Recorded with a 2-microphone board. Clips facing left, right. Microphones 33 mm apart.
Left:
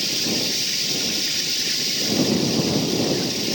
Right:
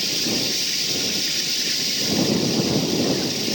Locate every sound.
0.0 s running water: 5° right (ahead or behind)